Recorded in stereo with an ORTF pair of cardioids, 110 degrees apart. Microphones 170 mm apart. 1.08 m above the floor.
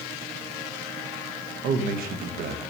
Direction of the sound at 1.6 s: 65° right.